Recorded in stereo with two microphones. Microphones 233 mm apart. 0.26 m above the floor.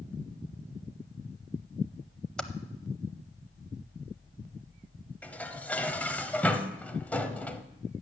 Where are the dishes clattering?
5° left (ahead or behind), 0.7 m.